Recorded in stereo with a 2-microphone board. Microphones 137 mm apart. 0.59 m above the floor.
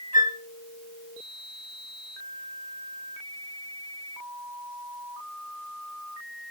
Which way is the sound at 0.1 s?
65° left (ahead or behind).